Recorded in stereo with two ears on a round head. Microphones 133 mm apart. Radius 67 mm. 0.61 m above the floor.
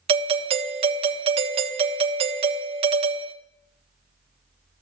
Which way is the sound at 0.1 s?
40° right (ahead or behind).